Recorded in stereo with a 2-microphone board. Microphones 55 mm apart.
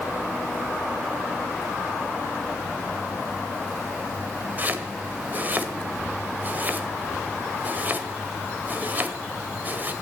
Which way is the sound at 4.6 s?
35° right (ahead or behind).